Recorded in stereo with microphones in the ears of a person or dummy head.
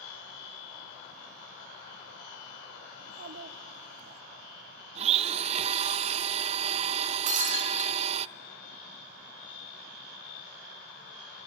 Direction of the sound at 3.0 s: 50° right (ahead or behind).